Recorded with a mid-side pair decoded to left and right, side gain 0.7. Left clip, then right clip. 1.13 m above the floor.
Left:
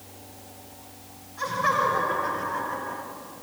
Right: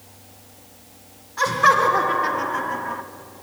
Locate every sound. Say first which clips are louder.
1.4 s laughter: right 8 dB; 55° right, 4 m; by 3.0 s 40° right, 2.5 m